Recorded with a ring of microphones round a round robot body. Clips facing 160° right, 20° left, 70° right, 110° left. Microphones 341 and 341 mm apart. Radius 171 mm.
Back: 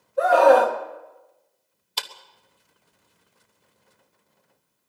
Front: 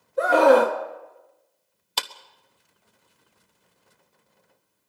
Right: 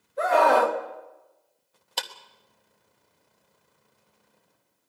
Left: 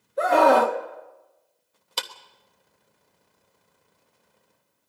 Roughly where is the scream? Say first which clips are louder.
Even, left 3 dB; left.